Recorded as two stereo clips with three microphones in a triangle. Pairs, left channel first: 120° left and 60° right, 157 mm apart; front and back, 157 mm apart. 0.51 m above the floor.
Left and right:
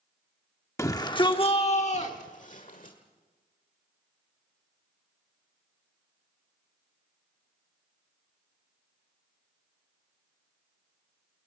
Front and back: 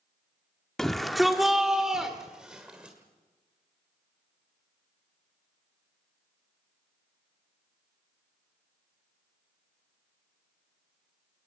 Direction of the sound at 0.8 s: 85° left.